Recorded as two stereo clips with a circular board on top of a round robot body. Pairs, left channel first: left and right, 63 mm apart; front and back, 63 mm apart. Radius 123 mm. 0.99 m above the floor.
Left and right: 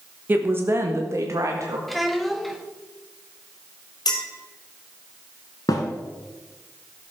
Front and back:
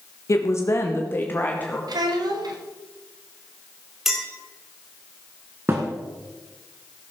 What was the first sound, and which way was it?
A woman speaking, 35° right.